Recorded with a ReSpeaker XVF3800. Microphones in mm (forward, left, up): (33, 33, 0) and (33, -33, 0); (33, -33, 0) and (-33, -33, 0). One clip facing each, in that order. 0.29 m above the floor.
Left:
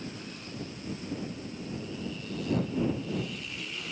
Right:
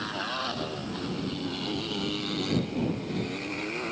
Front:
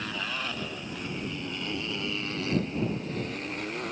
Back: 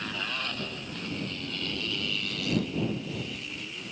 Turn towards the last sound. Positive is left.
turn(degrees=-40)